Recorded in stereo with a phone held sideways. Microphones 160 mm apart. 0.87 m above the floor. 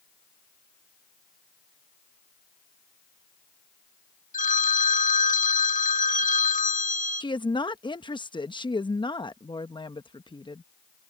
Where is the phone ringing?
50° left (ahead or behind).